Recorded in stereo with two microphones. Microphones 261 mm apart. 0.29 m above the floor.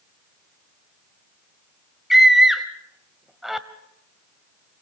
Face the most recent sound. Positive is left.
turn(degrees=0)  # may be behind; listen again after turning